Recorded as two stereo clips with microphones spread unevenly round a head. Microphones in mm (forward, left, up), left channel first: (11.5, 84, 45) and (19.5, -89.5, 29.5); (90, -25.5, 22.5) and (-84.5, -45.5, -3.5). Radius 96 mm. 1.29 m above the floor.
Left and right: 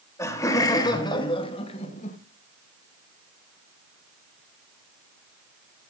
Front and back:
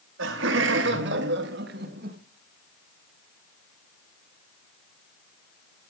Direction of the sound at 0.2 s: 170° left.